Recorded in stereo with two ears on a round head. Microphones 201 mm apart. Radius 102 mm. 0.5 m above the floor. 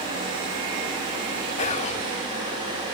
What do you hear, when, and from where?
1.6 s whispering: 30° left (ahead or behind), 1.2 m